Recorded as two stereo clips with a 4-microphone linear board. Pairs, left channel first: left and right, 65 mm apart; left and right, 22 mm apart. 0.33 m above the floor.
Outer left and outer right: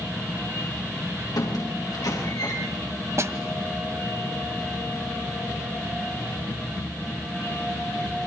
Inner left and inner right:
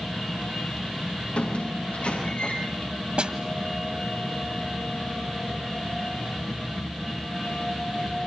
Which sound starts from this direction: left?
A squeak, at 1.4 s.